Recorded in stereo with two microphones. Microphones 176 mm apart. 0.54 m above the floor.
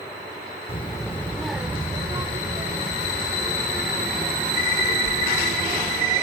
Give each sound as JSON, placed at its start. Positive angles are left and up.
{"t": 0.7, "sound": "a child speaking", "side_deg": 30, "distance_m": 1.1}